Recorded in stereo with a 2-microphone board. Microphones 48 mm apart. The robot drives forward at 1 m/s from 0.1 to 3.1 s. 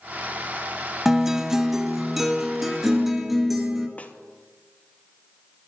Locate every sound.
1.1 s a guitar: 10° right (ahead or behind), 0.6 m; by 3.9 s 5° right (ahead or behind), 2.0 m
4.0 s a snare drum: 30° left (ahead or behind), 1.0 m